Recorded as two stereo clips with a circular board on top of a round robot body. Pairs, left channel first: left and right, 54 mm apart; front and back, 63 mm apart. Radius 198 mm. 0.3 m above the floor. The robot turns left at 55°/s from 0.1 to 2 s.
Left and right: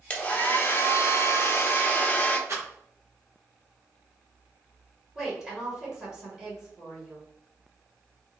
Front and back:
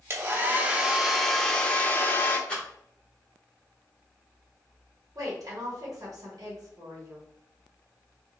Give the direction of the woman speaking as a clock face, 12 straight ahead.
5 o'clock.